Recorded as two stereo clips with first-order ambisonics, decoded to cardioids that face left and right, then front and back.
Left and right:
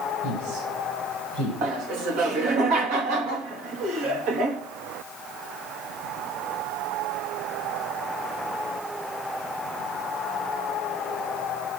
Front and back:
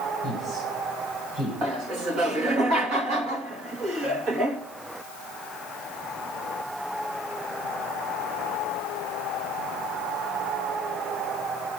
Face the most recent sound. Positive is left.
turn(degrees=-125)